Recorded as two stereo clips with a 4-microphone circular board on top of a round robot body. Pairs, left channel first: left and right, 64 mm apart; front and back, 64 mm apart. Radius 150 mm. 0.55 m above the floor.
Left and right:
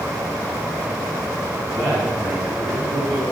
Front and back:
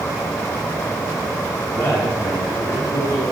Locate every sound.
1.7 s a man speaking: 50° right, 7.5 m